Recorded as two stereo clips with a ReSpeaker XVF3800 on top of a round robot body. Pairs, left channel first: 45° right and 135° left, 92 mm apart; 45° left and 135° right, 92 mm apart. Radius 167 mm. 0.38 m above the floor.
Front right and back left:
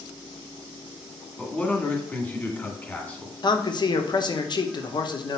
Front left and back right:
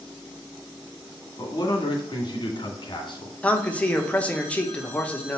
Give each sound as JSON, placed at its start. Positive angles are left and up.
{"t": 1.4, "sound": "a man speaking", "azimuth_deg": 25, "distance_m": 2.0}
{"t": 3.4, "sound": "a man speaking", "azimuth_deg": -30, "distance_m": 1.1}